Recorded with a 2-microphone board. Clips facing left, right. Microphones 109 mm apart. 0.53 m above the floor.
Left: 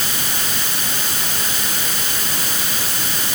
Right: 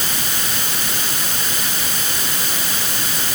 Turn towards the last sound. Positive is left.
No sound to turn to.